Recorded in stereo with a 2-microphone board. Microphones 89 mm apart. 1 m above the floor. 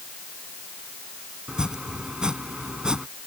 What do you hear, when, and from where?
1.5 s chopping: 10° right (ahead or behind)